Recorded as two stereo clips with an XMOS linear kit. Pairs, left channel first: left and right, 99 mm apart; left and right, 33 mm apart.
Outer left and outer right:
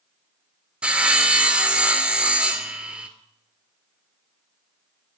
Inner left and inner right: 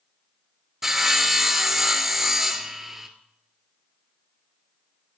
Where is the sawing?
10° right (ahead or behind), 0.7 m.